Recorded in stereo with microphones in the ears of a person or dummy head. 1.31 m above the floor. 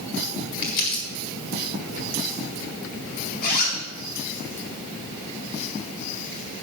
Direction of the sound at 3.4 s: 50° left (ahead or behind).